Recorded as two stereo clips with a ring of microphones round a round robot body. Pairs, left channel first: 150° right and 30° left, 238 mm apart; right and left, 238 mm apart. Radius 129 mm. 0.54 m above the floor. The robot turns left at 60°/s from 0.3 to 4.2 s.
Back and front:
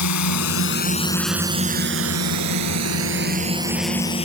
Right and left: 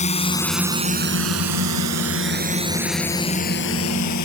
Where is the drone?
150° right; by 4.3 s 85° right.